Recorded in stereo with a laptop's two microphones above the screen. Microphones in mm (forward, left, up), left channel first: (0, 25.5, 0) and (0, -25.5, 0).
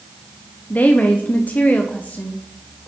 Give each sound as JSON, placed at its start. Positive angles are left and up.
{"t": 0.7, "sound": "a woman speaking", "side_deg": 30, "distance_m": 0.5}